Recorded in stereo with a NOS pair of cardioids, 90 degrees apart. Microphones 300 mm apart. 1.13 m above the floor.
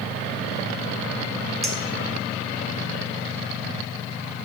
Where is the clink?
Straight ahead, 0.9 m.